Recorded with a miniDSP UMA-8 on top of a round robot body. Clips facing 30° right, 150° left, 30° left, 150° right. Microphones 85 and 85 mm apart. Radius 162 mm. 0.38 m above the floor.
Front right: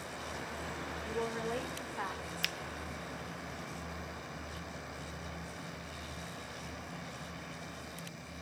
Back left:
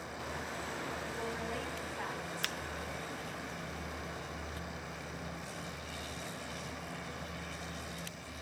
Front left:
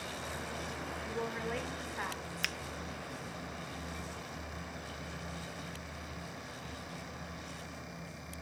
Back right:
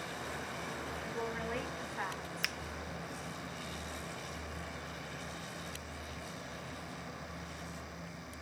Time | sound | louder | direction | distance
1.0 | a woman speaking | front right 3 dB, front left 1 dB | 60° right | 1.8 m
2.4 | a finger snap | even, front left 1 dB | 125° left | 0.6 m